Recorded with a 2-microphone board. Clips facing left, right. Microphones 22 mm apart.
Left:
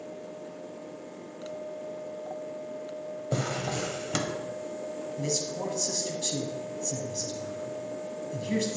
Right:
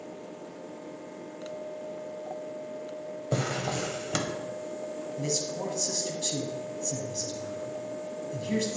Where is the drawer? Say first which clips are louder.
Right 1 dB; 5° right (ahead or behind), 0.7 m.